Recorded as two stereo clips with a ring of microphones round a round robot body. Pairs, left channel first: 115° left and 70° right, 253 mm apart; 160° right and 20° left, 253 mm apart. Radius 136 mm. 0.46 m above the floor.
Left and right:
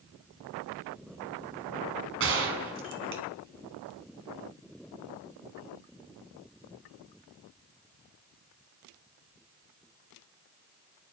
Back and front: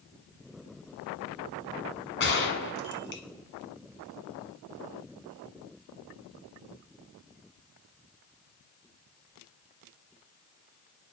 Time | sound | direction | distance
2.2 | a gunshot | 110° right | 1.7 m